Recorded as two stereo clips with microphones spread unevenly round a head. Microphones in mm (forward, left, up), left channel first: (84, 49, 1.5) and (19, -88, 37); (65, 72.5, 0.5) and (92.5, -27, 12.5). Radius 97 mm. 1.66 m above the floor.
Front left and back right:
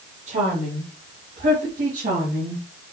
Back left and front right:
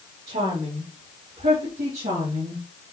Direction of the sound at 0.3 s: 80° right.